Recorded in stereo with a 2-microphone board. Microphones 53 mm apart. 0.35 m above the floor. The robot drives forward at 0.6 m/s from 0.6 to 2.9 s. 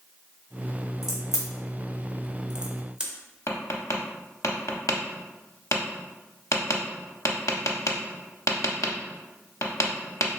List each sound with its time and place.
1.0 s a crack: 5° right (ahead or behind), 1.5 m; by 3.1 s 15° right (ahead or behind), 0.7 m
3.5 s tapping: 75° left (ahead or behind), 0.6 m